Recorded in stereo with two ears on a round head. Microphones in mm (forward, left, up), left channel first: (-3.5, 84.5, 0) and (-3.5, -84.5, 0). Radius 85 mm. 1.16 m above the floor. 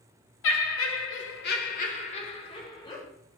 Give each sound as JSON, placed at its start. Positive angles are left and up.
{"t": 0.4, "sound": "laughter", "side_deg": 75, "distance_m": 0.8}